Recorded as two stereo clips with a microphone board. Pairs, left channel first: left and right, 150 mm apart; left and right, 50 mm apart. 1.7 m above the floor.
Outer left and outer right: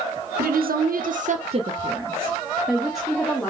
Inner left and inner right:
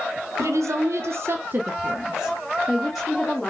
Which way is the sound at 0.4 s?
70° right (ahead or behind).